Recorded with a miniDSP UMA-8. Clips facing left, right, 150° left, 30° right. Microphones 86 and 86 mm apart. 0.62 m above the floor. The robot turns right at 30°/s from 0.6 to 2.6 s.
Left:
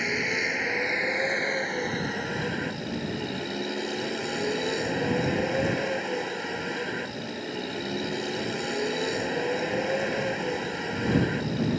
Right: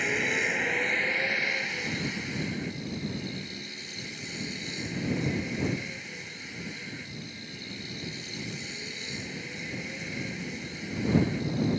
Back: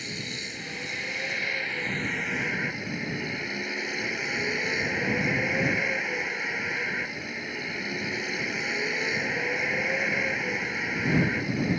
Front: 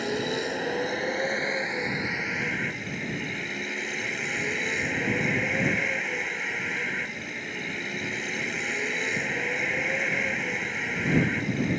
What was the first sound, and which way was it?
A vehicle, 5° left.